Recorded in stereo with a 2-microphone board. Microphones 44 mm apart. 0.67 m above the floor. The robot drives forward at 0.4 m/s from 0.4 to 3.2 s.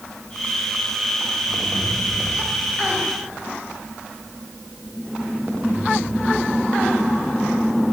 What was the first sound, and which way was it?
Only background noise.